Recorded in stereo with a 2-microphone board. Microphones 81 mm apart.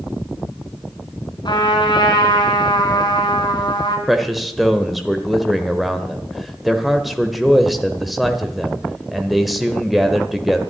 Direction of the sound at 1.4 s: 70° left (ahead or behind).